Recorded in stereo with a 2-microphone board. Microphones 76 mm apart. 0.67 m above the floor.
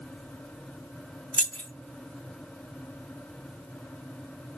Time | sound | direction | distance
1.3 | keys jangling | 15° left (ahead or behind) | 0.7 m